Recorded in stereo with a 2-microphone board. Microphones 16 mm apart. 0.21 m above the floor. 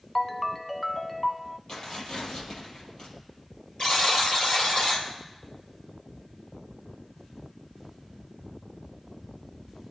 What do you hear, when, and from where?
0.1 s a ringtone: 15° left (ahead or behind), 0.6 m
1.7 s tearing paper: 50° left (ahead or behind), 6.5 m
3.8 s a buzzer: 45° left (ahead or behind), 4.5 m